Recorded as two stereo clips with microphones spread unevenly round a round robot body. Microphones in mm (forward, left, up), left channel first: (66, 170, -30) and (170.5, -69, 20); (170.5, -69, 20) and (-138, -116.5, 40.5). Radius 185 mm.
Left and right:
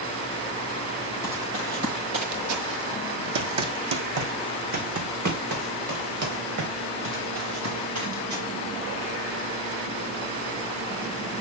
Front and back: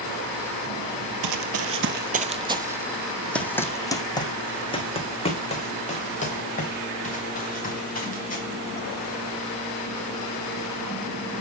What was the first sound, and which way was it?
Running footsteps, 150° right.